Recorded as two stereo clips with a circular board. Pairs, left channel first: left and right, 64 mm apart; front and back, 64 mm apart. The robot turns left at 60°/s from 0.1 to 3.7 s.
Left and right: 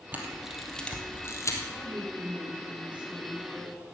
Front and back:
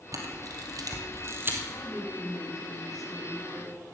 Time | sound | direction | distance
0.1 | a camera shutter | 150° right | 2.0 m
1.7 | a woman speaking | 85° right | 3.5 m